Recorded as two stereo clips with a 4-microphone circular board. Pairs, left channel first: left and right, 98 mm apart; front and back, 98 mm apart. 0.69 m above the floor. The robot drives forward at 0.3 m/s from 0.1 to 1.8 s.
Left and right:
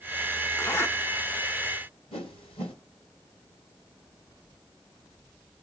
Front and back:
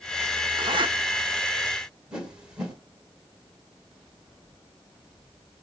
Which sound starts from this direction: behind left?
A zipper, at 0.6 s.